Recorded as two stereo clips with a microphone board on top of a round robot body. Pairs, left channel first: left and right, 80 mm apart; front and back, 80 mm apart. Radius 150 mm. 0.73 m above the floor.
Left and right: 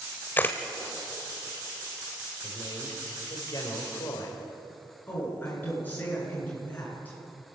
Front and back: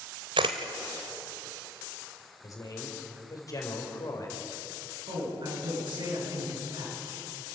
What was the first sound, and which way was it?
A camera shutter, 160° left.